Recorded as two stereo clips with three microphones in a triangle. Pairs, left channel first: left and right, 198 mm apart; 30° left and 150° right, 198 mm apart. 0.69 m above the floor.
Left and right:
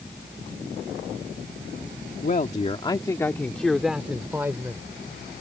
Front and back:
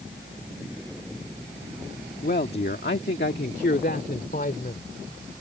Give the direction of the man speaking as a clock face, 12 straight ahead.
10 o'clock.